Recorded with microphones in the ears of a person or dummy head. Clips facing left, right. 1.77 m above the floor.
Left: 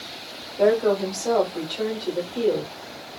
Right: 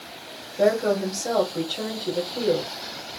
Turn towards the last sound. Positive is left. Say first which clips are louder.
# left 2 dB
turn(degrees=-10)  # may be behind; listen again after turning